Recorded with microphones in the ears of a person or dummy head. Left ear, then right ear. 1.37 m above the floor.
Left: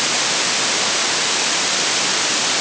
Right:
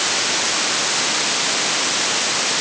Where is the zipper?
No zipper in this recording.